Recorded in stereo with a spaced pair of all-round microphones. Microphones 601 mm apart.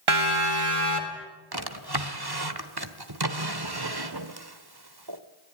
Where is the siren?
50° right (ahead or behind), 2.5 m; by 1.3 s 55° right (ahead or behind), 3.5 m.